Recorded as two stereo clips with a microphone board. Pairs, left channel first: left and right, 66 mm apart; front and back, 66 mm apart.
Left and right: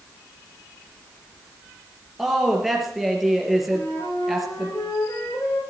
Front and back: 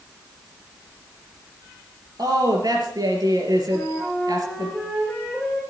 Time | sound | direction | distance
2.2 | a woman speaking | 175° right | 4 m
3.7 | a flute | 80° left | 6.5 m